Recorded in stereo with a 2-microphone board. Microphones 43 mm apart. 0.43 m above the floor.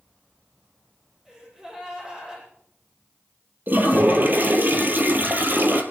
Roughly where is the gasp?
Centre.